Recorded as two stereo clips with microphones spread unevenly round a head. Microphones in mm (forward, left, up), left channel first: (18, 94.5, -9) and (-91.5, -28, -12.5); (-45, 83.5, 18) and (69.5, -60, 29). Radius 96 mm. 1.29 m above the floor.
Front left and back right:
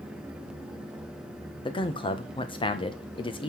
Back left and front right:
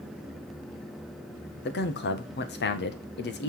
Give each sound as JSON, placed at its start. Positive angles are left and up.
{"t": 1.6, "sound": "a man speaking", "azimuth_deg": 110, "distance_m": 1.3}